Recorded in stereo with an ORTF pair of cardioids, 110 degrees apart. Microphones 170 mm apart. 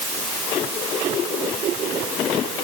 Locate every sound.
Only background noise.